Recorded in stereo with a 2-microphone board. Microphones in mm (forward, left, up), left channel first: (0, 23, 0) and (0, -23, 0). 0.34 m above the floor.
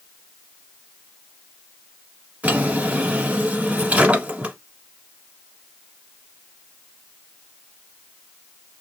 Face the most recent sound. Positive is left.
turn(degrees=-35)  # may be behind; listen again after turning